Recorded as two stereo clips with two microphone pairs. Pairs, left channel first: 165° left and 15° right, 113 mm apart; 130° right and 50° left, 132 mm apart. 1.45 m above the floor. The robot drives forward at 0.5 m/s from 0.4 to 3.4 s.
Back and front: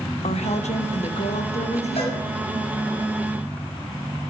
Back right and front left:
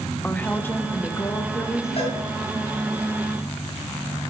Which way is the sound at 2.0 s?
170° right.